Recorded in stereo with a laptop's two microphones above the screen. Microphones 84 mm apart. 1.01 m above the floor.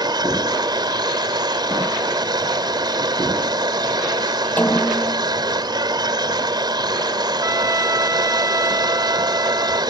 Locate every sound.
0.0 s a machine running: 55° right (ahead or behind)
4.6 s a snare drum: 20° left (ahead or behind)
7.4 s a trumpet: 40° right (ahead or behind)